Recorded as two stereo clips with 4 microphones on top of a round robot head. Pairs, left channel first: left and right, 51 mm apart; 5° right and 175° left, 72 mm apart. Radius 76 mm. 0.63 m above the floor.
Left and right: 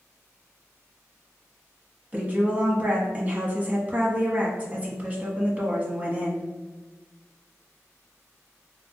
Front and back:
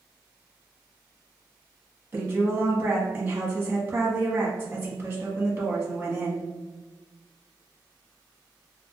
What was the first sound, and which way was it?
A woman speaking, 135° right.